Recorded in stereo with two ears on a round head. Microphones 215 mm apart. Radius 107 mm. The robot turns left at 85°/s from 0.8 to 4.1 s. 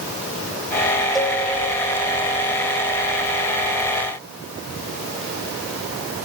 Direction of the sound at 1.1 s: Centre (ahead or behind).